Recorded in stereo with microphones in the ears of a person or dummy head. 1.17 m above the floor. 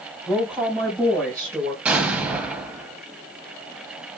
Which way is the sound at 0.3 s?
5° left (ahead or behind).